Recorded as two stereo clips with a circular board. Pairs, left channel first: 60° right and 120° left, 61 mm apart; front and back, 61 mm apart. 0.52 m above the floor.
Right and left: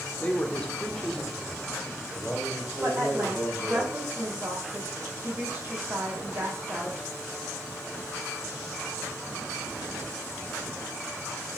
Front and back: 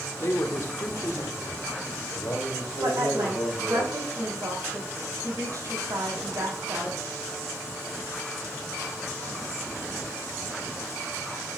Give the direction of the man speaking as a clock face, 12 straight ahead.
12 o'clock.